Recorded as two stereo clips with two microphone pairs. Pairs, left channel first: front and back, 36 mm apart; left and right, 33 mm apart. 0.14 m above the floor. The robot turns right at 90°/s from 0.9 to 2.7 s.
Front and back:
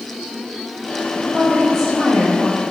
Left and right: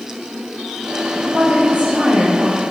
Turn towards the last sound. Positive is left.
turn(degrees=5)